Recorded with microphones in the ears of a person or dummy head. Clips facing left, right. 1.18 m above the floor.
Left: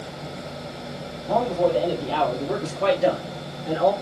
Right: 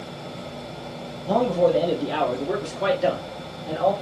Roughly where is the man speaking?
Right.